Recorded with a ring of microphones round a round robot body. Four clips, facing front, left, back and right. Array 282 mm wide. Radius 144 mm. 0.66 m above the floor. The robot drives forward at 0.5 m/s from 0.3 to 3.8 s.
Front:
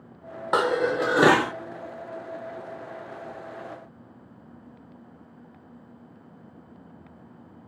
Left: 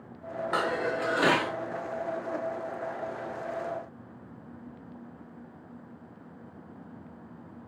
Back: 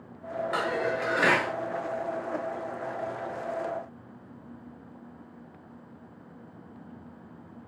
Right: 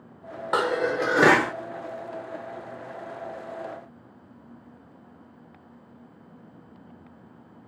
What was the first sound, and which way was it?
Dishes clattering, 30° right.